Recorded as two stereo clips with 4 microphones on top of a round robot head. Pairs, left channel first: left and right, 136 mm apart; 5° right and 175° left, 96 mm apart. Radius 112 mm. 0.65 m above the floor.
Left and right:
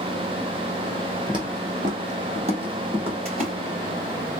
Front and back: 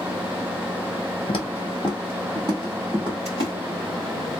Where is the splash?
125° right, 2.5 m.